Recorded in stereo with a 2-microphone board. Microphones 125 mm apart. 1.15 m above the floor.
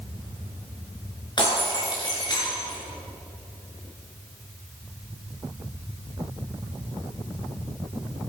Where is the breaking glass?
35° left (ahead or behind), 5.5 m.